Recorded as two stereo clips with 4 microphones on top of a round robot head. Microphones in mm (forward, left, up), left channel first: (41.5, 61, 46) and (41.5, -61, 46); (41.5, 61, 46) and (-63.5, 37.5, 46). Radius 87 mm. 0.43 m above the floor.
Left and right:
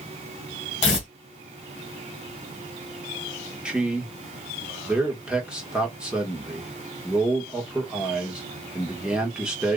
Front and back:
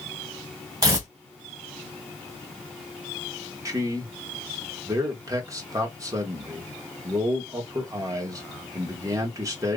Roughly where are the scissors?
No scissors in this recording.